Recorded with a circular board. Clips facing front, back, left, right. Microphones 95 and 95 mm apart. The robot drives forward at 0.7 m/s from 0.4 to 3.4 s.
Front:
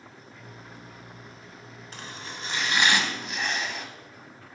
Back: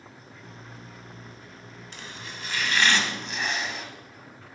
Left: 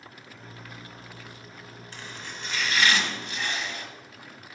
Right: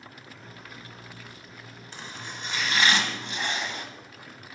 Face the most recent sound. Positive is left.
turn(degrees=-95)